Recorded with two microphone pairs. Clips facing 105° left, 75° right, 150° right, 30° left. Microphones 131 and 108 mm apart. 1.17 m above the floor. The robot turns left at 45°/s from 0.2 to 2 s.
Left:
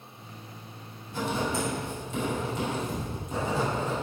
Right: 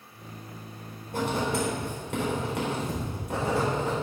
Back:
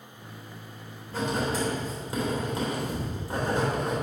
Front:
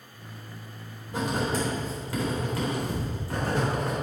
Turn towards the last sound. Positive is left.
turn(degrees=-80)